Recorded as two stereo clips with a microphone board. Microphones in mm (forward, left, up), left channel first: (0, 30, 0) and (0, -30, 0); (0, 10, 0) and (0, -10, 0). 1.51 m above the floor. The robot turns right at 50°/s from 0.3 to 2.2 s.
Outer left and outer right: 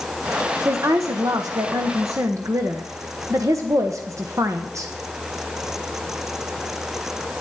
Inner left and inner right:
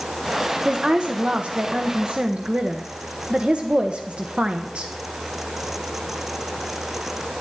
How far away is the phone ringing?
I don't hear a phone ringing.